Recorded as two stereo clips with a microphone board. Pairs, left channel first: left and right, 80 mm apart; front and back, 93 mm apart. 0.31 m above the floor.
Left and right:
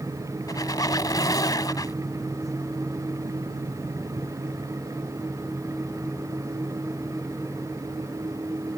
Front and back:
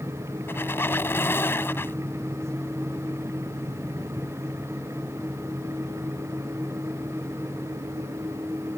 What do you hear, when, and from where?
0.5 s a squeak: 60° left